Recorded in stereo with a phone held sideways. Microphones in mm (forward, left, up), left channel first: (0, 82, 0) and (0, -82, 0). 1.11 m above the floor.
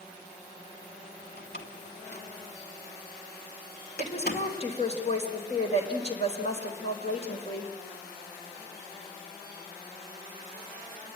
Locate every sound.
1.4 s a door slam: 70° left (ahead or behind), 2.5 m
4.0 s a woman speaking: 40° left (ahead or behind), 4.5 m